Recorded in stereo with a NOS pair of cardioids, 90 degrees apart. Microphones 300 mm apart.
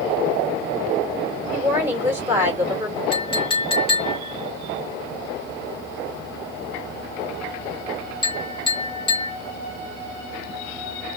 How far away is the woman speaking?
About 2 m.